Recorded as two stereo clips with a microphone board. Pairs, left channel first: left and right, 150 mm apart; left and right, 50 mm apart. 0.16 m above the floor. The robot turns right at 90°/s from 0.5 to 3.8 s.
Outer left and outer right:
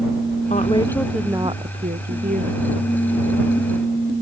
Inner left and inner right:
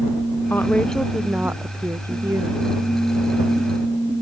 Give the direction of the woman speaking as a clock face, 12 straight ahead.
8 o'clock.